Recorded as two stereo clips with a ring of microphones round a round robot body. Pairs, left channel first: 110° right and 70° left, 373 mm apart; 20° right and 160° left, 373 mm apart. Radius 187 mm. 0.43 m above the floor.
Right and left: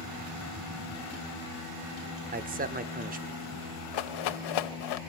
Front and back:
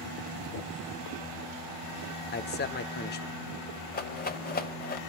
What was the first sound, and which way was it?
A man speaking, 20° left.